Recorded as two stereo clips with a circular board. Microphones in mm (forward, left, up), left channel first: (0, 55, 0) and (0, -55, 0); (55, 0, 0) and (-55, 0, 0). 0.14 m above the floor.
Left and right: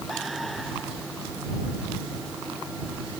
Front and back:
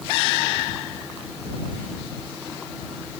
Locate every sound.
Only background noise.